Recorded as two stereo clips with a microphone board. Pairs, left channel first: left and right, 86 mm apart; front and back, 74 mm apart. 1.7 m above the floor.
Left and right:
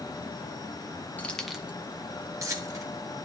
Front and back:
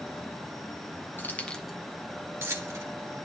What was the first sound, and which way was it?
Keys jangling, 30° left.